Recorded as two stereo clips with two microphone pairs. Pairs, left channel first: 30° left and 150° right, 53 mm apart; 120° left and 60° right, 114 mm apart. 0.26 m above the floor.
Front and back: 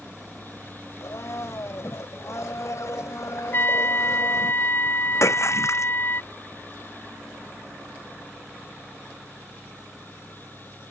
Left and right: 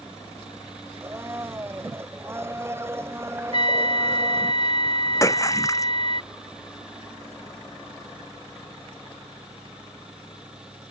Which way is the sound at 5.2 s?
55° left.